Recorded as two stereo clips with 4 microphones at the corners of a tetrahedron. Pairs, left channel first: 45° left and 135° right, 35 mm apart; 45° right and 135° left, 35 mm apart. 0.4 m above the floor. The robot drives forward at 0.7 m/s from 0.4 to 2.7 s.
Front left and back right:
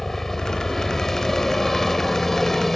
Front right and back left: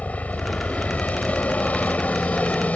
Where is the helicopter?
35° right; by 2.8 s 40° right.